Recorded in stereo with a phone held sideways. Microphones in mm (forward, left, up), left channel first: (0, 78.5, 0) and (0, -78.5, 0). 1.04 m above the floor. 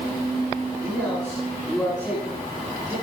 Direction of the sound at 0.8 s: Centre (ahead or behind).